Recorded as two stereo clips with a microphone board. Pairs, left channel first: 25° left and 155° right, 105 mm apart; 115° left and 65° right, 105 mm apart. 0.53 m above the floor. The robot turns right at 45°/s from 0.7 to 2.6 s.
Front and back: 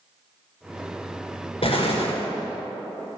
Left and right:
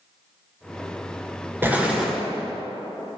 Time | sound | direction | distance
1.6 | an explosion | straight ahead | 1.5 m